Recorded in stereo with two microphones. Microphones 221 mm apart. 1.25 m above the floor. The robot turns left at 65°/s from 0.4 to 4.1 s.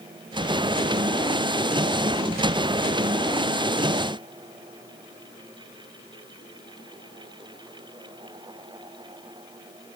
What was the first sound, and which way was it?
Only background noise.